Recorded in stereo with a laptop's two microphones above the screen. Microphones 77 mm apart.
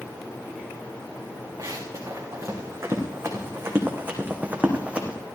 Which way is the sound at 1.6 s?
45° right (ahead or behind).